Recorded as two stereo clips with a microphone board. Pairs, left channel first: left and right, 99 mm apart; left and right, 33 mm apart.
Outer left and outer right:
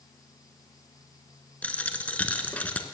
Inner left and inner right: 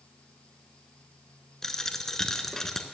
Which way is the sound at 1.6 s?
15° left (ahead or behind).